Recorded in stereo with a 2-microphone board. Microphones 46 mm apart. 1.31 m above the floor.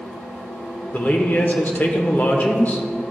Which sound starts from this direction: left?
A man speaking, at 0.9 s.